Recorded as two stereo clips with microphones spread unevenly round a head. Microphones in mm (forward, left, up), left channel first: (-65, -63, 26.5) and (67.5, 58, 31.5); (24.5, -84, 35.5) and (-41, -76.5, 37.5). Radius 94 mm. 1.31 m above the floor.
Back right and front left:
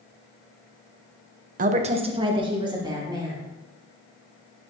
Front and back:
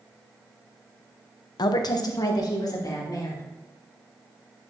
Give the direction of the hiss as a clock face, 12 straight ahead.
No hiss in this recording.